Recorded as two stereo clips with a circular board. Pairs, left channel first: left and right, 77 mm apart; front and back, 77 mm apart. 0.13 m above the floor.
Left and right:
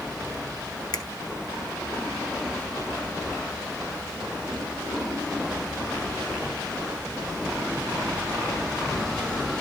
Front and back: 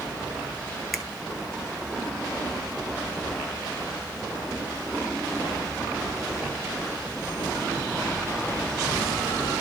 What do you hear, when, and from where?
0.9 s a finger snap: 90° left, 1.8 m